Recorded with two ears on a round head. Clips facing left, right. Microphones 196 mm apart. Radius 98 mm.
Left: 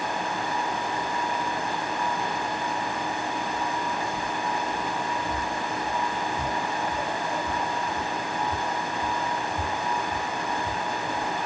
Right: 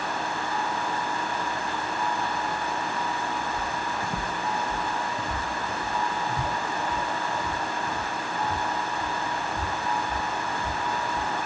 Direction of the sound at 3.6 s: 20° right (ahead or behind).